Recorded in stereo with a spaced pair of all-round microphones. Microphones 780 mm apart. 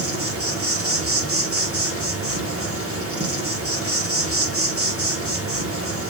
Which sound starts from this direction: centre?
An insect, at 0.0 s.